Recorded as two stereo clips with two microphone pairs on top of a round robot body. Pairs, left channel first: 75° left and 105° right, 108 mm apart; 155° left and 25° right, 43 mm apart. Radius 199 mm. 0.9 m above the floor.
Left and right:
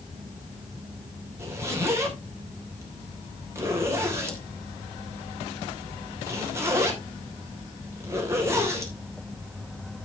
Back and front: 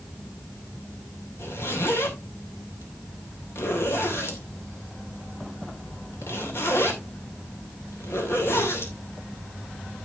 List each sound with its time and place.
1.4 s a zipper: 175° right, 3 m